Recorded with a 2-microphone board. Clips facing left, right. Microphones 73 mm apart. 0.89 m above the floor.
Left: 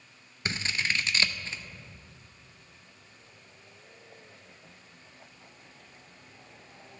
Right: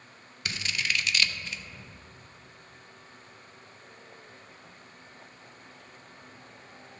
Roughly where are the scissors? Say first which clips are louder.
Left 1 dB; left.